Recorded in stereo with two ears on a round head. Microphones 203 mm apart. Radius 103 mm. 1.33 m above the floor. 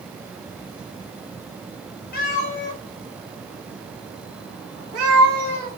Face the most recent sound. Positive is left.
turn(degrees=-75)  # may be behind; listen again after turning